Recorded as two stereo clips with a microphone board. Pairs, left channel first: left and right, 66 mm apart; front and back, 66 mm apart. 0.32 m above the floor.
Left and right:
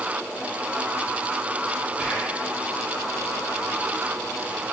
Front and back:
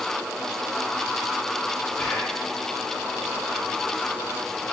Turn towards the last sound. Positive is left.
turn(degrees=-50)